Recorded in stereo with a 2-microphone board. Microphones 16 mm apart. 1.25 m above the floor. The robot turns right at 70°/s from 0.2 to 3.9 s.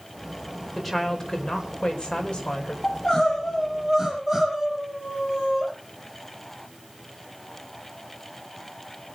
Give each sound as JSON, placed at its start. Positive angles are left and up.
{"t": 0.8, "sound": "a woman speaking", "azimuth_deg": -10, "distance_m": 5.0}
{"t": 2.8, "sound": "crying", "azimuth_deg": 125, "distance_m": 8.5}